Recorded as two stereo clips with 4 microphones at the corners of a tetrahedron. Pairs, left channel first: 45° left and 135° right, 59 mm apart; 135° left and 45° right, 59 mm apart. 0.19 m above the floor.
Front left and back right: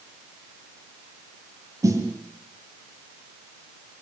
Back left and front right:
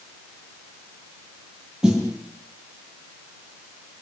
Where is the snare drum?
120° right, 6 m.